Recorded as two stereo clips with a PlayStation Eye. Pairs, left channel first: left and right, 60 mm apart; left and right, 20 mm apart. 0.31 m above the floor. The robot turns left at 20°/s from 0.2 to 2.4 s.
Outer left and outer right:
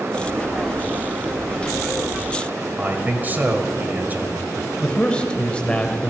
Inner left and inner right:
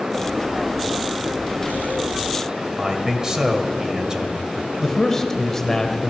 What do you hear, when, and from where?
2.8 s a man speaking: 30° right (ahead or behind), 1.3 m
4.8 s a man speaking: 20° left (ahead or behind), 0.9 m